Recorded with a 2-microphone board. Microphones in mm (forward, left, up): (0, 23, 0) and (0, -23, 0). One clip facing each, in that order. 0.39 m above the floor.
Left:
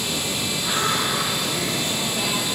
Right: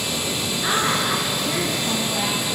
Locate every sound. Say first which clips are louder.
0.6 s a woman speaking: right 2 dB; 45° right (ahead or behind), 6 m